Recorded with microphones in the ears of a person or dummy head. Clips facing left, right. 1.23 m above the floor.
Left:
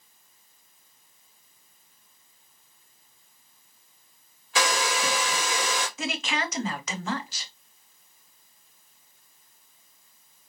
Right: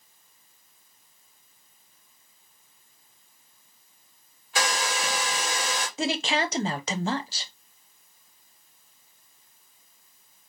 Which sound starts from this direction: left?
A hair dryer, at 4.5 s.